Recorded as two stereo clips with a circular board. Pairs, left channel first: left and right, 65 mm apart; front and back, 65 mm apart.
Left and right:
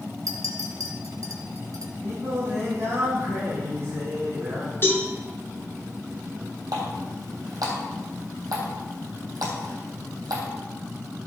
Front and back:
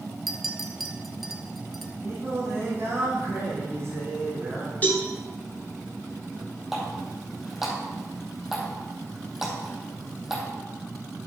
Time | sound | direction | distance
0.3 | a clink | 90° right | 1.3 m
2.0 | singing | 135° right | 4.5 m
4.8 | a cowbell | 55° left | 2.5 m
6.7 | a running tap | 95° right | 3.5 m